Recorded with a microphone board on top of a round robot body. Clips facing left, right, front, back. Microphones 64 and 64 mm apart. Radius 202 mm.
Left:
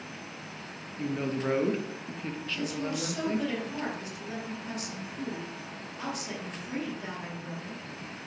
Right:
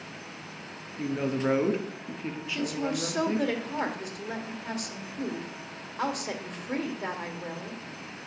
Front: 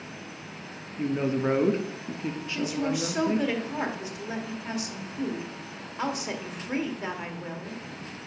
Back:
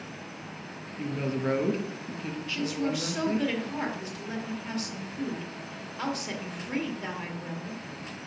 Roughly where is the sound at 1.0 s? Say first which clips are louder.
Right 2 dB, front 4 dB; ahead right.